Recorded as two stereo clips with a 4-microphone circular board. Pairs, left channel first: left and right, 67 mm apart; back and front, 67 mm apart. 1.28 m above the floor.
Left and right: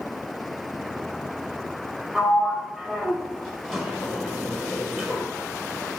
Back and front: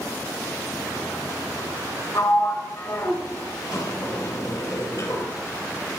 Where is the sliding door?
175° left, 1.5 m.